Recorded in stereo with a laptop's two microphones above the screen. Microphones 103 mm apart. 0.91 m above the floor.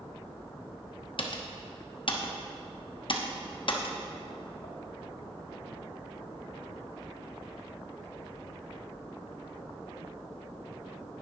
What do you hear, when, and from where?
1.2 s typing on a keyboard: 55° left (ahead or behind), 0.7 m